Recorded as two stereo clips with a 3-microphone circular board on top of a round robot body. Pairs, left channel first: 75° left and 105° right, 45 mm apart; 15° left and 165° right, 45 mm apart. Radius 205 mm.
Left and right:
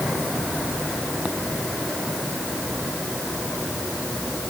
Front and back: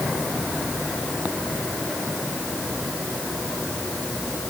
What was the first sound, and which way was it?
Only background noise.